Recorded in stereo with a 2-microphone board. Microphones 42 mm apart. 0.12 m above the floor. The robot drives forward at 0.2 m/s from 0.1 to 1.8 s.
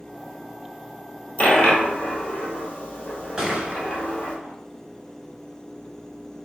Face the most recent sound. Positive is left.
turn(degrees=-15)  # may be behind; listen again after turning